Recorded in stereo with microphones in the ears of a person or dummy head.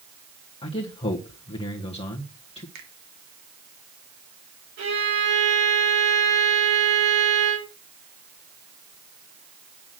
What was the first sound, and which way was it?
A man speaking, 30° left (ahead or behind).